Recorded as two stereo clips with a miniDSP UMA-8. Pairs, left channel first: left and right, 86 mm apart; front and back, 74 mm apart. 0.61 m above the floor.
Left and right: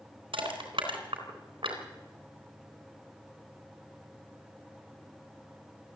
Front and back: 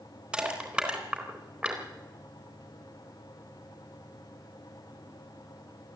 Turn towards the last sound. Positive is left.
turn(degrees=-100)